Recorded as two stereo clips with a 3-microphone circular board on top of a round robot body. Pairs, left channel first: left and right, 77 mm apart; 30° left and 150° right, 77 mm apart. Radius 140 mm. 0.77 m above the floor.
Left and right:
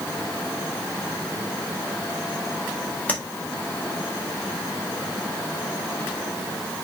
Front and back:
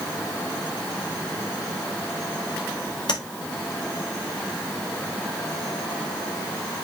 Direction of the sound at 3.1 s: 20° left.